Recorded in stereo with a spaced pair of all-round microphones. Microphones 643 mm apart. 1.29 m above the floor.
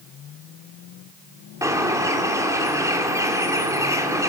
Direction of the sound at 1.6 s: 5° right (ahead or behind).